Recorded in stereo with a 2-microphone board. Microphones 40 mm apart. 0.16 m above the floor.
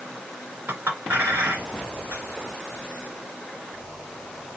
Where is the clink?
55° right (ahead or behind), 1.8 m.